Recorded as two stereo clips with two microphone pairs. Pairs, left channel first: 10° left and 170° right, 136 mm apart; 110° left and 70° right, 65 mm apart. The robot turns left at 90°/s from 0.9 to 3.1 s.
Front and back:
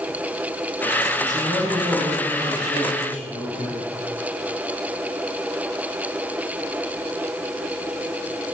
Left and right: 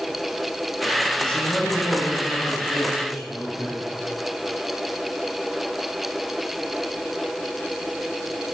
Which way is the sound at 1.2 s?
170° right.